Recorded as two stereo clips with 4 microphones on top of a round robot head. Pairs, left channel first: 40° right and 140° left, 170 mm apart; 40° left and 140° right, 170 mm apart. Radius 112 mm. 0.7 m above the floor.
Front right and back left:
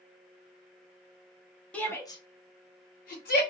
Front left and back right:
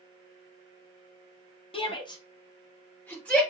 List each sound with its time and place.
1.7 s a shout: 35° left, 1.2 m; by 3.4 s 40° right, 1.8 m